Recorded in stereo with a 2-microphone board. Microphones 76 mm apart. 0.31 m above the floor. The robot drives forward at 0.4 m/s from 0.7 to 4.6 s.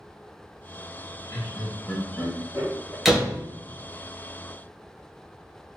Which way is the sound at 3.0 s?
5° right (ahead or behind).